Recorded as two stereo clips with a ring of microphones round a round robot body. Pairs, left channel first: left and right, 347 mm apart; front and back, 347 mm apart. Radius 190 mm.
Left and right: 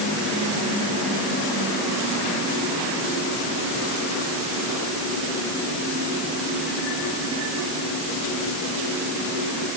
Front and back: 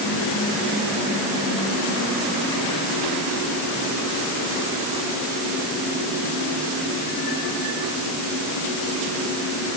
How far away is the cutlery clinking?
No cutlery clinking in this recording.